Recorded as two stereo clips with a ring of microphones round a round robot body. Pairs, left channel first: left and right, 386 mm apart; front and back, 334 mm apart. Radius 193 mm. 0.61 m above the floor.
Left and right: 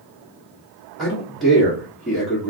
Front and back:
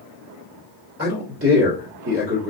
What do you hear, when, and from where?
1.0 s a man speaking: straight behind, 1.4 m